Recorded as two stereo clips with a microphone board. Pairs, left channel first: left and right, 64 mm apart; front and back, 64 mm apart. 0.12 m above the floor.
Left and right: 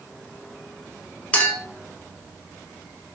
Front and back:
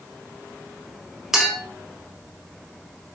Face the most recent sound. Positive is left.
turn(degrees=110)